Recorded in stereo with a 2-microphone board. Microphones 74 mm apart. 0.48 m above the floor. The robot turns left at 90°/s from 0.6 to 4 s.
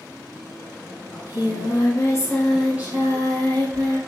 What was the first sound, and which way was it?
Singing, 135° left.